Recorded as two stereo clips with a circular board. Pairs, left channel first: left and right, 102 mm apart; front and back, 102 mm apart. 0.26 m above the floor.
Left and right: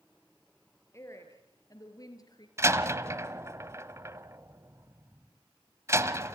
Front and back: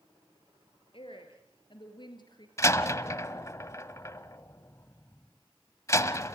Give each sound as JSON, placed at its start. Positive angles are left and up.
{"t": 0.9, "sound": "a woman speaking", "azimuth_deg": 30, "distance_m": 5.0}
{"t": 2.6, "sound": "a door slam", "azimuth_deg": -45, "distance_m": 0.9}